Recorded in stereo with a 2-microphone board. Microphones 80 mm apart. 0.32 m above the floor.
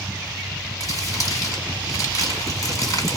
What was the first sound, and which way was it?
Crumpling, 45° left (ahead or behind).